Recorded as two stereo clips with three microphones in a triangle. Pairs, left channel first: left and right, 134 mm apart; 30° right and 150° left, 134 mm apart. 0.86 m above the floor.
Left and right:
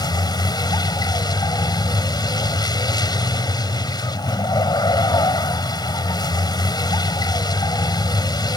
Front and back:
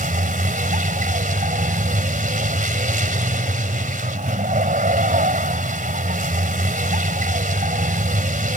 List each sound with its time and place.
0.0 s a vehicle: 150° left